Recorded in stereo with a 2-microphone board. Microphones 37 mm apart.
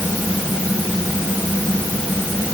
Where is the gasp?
I don't hear a gasp.